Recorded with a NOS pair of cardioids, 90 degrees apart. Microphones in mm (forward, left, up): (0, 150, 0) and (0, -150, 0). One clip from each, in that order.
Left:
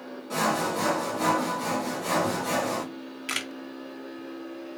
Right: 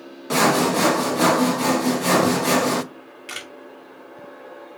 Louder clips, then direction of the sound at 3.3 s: Left 3 dB; 20° left.